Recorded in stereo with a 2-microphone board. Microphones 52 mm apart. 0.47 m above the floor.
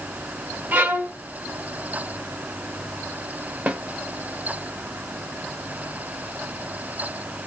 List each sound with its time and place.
0.7 s a violin: 35° right (ahead or behind), 0.9 m
3.7 s a snare drum: 25° right (ahead or behind), 1.0 m